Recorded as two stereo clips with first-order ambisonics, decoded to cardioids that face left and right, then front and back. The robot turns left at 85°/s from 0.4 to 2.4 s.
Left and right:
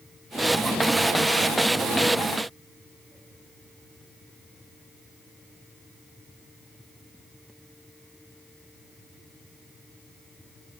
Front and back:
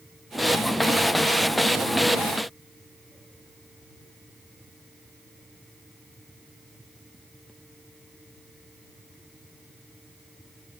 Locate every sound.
Only background noise.